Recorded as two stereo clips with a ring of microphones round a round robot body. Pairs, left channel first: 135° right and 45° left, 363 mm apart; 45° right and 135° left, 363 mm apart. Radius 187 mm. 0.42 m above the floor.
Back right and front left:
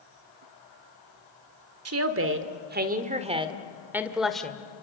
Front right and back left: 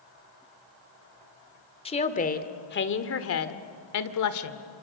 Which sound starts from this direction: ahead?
A woman speaking, at 1.9 s.